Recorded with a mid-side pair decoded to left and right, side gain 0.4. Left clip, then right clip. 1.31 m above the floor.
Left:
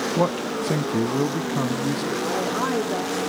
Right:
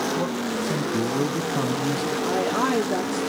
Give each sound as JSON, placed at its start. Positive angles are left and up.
{"t": 0.2, "sound": "a man speaking", "azimuth_deg": 65, "distance_m": 1.6}
{"t": 2.2, "sound": "a woman speaking", "azimuth_deg": -25, "distance_m": 2.5}